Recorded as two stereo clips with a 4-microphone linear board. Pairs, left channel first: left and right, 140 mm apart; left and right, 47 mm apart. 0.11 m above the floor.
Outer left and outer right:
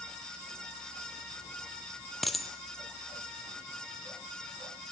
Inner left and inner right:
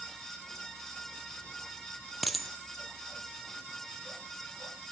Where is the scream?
No scream in this recording.